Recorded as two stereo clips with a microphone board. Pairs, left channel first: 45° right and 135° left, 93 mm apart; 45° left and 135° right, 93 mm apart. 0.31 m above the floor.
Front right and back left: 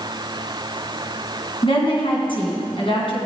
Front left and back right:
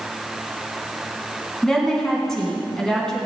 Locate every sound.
1.6 s a woman speaking: 40° right, 3.5 m